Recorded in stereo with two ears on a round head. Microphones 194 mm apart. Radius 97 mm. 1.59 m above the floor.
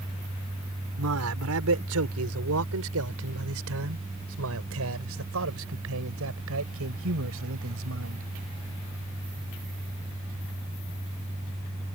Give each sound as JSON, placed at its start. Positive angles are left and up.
{"t": 1.0, "sound": "a man speaking", "side_deg": -85}